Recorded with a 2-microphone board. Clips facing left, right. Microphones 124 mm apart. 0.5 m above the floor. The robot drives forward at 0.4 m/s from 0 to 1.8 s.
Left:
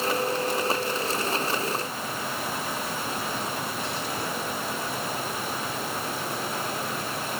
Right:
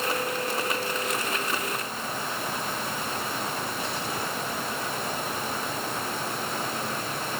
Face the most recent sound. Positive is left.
No sound to turn to.